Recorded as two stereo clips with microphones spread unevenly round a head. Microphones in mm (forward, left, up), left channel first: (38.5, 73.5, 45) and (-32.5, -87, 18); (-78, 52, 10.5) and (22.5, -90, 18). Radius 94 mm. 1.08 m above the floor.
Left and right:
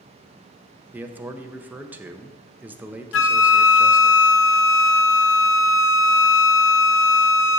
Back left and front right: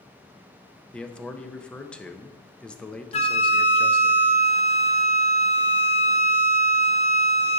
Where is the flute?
70° left, 0.5 m.